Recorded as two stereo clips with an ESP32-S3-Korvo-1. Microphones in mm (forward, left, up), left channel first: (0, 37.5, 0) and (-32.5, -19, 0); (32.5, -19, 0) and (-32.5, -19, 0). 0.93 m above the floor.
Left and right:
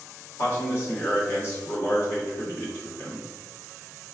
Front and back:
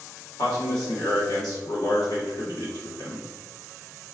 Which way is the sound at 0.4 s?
5° left.